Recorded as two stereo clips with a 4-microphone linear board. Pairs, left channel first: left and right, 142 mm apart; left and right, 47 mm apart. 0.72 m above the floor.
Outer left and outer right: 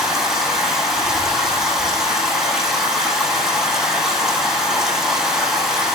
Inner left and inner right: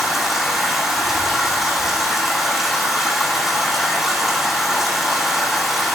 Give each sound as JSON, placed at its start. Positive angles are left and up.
{"t": 0.0, "sound": "running water", "side_deg": -5, "distance_m": 9.5}